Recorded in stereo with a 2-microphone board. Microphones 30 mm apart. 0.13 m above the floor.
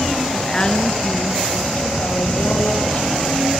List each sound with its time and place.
0.3 s a woman speaking: 10° left (ahead or behind), 1.3 m; by 3.4 s 70° left (ahead or behind), 5 m